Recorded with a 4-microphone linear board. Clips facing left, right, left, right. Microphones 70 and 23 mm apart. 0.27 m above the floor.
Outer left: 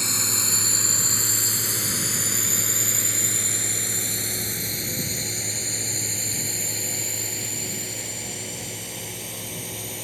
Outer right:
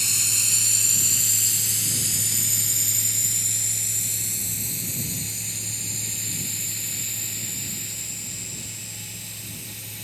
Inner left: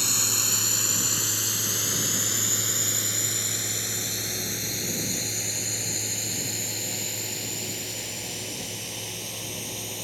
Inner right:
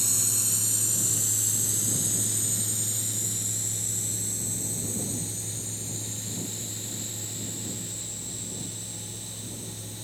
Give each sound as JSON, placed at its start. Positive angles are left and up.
{"t": 0.0, "sound": "a drone", "side_deg": 45}